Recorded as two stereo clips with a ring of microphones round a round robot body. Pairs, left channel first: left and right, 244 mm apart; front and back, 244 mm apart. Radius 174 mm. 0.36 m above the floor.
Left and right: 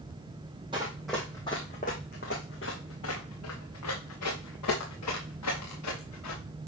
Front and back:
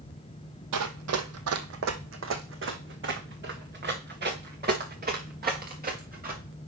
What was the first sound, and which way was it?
Running footsteps, 165° right.